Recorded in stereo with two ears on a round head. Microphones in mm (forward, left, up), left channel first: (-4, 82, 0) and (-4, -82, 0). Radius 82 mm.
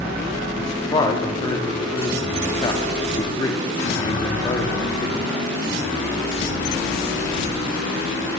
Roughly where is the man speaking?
Left.